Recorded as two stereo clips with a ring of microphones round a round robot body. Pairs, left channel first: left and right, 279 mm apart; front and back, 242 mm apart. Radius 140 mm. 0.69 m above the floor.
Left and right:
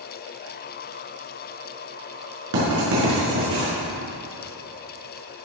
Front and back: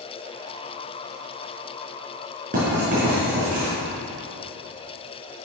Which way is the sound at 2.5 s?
115° right.